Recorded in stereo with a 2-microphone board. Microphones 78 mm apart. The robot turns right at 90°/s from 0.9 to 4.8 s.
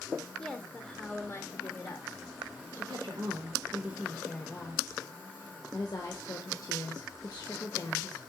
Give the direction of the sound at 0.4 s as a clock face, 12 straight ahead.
11 o'clock.